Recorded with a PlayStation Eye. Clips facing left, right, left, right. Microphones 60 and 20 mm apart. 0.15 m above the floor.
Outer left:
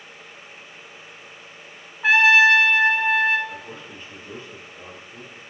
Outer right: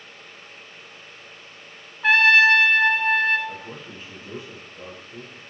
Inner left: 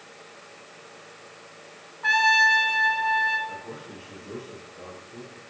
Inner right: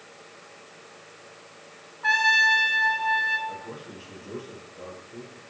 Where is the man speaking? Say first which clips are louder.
Even, even; 10° right (ahead or behind), 3.5 m.